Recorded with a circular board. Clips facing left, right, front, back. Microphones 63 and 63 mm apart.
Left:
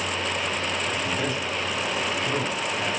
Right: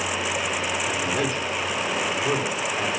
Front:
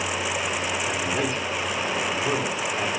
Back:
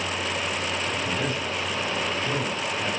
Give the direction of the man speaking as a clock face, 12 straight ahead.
1 o'clock.